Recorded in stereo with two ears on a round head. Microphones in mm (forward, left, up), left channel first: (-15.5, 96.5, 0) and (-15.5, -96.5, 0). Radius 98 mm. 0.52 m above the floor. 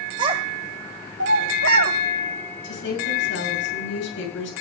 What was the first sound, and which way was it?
A child speaking, 20° right (ahead or behind).